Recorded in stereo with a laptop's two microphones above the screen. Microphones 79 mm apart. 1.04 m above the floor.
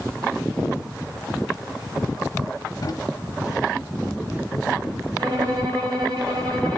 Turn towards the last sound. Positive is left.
turn(degrees=-55)  # may be behind; listen again after turning